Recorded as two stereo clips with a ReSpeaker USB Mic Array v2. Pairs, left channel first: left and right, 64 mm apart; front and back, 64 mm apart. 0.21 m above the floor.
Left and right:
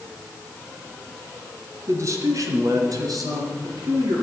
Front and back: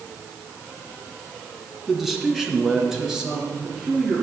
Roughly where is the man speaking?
Right.